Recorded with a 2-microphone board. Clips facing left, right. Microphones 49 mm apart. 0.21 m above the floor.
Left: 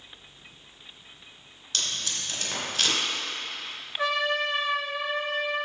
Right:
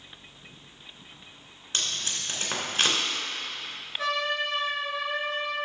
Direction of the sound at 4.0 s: 20° left (ahead or behind).